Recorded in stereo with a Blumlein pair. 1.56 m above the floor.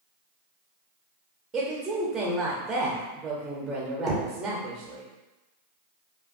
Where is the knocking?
20° right, 0.6 m.